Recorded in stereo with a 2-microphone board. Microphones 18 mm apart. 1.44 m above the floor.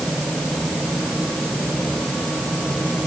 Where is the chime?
No chime in this recording.